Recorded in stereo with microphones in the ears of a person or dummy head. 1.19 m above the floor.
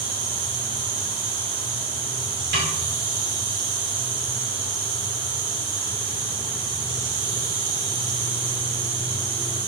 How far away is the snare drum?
About 4.5 m.